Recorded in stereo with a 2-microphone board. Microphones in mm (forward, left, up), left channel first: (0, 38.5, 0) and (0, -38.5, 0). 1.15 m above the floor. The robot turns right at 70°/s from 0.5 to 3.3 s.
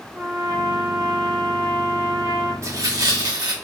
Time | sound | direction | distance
0.1 | a trumpet | 50° right | 1.6 m
2.6 | tearing paper | 135° right | 0.9 m